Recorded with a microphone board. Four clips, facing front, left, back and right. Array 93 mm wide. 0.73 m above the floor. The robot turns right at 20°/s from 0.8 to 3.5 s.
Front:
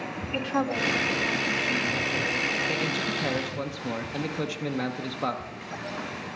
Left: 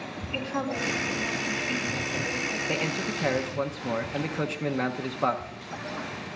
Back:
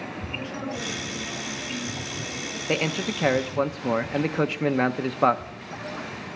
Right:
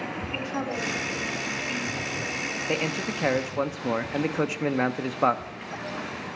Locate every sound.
0.3 s a woman speaking: 10° right, 2.5 m; by 2.6 s 25° left, 2.5 m
2.7 s a man speaking: 170° right, 0.8 m; by 5.4 s 155° right, 0.8 m